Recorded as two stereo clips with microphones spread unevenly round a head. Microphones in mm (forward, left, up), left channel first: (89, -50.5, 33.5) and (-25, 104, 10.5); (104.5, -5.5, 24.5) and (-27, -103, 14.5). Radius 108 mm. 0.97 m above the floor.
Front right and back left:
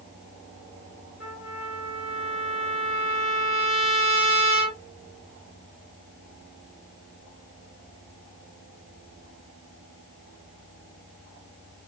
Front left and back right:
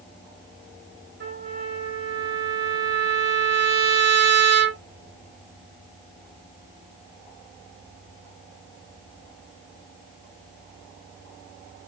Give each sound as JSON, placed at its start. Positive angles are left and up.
{"t": 1.2, "sound": "a trumpet", "azimuth_deg": -150, "distance_m": 1.2}